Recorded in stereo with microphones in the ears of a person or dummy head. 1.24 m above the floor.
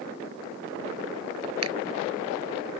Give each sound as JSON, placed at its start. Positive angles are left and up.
{"t": 1.6, "sound": "a finger snap", "side_deg": -80}